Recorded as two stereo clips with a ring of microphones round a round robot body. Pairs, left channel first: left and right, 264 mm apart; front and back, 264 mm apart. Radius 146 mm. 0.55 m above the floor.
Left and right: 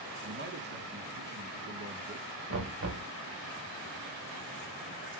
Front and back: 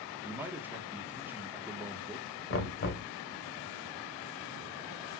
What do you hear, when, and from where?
0.2 s a man speaking: 100° right, 1.4 m
2.5 s knocking: 45° right, 1.7 m